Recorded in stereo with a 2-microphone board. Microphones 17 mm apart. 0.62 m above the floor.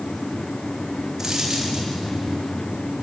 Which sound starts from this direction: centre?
A dropped coin, at 1.2 s.